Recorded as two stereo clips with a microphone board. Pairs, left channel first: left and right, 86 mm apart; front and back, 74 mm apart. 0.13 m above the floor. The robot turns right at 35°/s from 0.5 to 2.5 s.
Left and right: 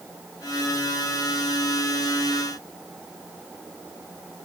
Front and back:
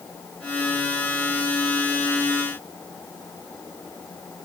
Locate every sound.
Only background noise.